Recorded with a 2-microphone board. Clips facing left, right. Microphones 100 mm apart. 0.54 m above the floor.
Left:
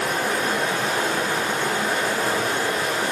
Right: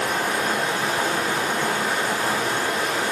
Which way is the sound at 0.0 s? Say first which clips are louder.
Even; 35° left (ahead or behind).